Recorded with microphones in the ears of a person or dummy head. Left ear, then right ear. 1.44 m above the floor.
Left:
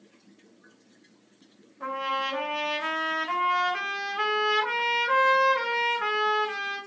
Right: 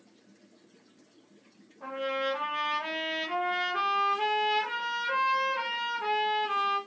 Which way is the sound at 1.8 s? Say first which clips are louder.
Left 3 dB; 50° left (ahead or behind).